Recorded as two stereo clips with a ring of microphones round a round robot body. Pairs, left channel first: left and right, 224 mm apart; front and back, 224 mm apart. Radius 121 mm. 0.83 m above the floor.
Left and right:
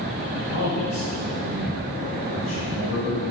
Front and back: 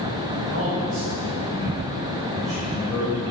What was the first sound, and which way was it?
A man speaking, 140° left.